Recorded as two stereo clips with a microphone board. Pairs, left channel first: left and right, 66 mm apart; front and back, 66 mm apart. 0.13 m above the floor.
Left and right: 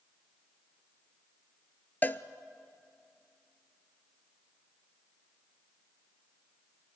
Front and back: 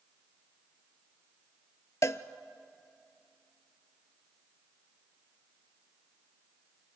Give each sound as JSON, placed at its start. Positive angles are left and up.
{"t": 2.0, "sound": "a cowbell", "azimuth_deg": 30, "distance_m": 0.6}